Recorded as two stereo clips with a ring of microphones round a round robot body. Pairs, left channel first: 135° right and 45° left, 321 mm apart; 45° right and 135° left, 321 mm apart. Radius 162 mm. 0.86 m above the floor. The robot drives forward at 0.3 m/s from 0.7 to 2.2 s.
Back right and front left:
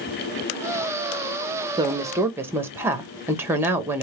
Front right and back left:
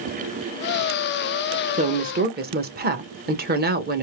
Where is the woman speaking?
100° left, 0.8 m; by 4.0 s 120° left, 0.8 m.